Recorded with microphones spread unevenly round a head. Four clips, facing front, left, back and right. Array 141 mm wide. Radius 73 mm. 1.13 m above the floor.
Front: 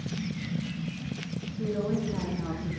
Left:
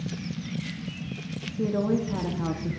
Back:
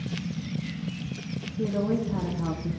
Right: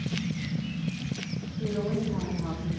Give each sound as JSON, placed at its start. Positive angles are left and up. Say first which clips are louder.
{"t": 1.6, "sound": "a woman speaking", "louder": "left 4 dB, back 3 dB", "azimuth_deg": 125, "distance_m": 1.6}